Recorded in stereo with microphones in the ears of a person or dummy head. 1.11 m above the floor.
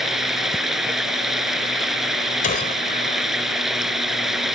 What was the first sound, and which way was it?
Running water, centre (ahead or behind).